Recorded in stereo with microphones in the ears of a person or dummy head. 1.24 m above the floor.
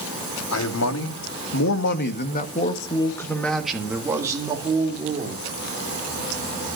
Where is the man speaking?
85° left, 2 m; by 5.4 s 25° right (ahead or behind), 2.5 m.